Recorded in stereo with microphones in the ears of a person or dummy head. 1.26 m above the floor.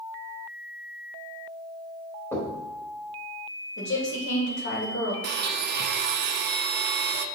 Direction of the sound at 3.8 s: 50° left (ahead or behind).